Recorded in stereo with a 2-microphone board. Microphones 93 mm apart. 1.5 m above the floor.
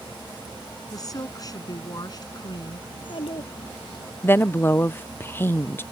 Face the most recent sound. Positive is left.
turn(degrees=25)  # may be behind; listen again after turning